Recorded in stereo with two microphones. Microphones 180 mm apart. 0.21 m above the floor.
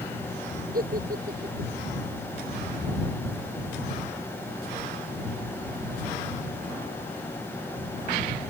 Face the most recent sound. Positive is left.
turn(degrees=-55)  # may be behind; listen again after turning